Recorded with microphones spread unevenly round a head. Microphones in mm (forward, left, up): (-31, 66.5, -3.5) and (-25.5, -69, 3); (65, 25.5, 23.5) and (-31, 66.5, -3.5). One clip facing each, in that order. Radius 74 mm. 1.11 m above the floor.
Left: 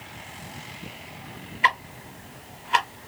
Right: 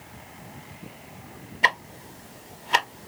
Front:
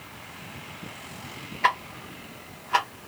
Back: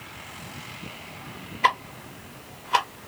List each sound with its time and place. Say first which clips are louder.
1.6 s ticking: left 2 dB, back 2 dB; 110° right, 0.8 m